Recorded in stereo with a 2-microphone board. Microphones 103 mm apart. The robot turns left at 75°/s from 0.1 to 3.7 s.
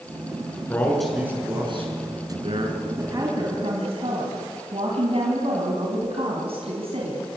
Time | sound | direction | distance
0.7 | a man speaking | 25° left | 6 m
3.0 | a woman speaking | 25° right | 4 m